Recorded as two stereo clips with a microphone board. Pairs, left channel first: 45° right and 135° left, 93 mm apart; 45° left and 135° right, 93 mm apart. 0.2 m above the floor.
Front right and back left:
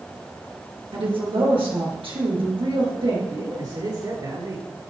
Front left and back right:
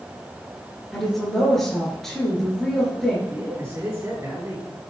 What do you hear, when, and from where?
0.9 s a woman speaking: 130° left, 3 m
3.3 s a man speaking: 170° left, 3.5 m